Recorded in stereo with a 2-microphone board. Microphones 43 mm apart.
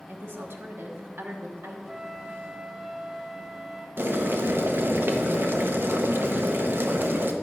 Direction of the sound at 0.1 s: 65° right (ahead or behind).